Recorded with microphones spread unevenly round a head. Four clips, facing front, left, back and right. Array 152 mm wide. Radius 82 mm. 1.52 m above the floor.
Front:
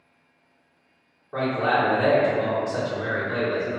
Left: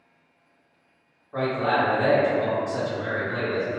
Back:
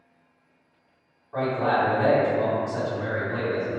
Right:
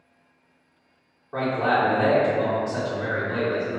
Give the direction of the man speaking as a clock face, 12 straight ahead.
1 o'clock.